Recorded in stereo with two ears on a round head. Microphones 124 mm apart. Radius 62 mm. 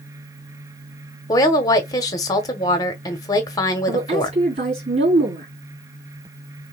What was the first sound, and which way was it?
A woman speaking, 25° left (ahead or behind).